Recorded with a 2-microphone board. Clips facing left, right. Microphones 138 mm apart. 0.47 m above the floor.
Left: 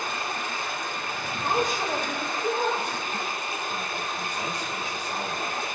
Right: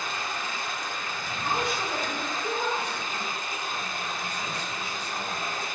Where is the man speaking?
45° left (ahead or behind), 1.5 m.